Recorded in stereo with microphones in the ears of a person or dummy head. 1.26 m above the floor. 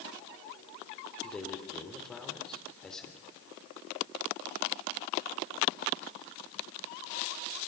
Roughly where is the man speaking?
Centre.